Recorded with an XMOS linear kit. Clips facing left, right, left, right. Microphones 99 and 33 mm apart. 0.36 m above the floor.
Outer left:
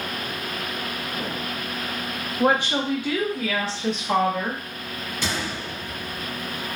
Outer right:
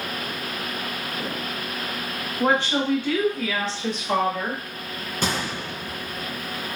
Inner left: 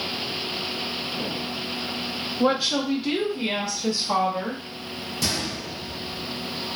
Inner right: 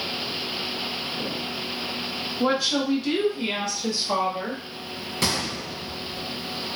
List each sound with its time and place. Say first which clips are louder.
2.4 s a woman speaking: even, inner left 1 dB; 15° left (ahead or behind), 1.0 m; by 4.6 s centre (ahead or behind), 1.3 m
5.2 s a gunshot: outer right 3 dB, inner right 2 dB; 50° right (ahead or behind), 0.7 m